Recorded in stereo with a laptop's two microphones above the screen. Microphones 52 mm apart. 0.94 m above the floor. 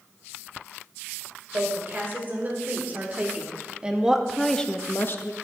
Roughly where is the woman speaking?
Right.